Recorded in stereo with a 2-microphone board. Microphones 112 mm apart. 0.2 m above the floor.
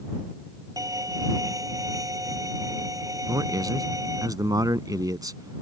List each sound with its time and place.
0.8 s a violin: 30° right (ahead or behind)
3.3 s a man speaking: 35° right (ahead or behind)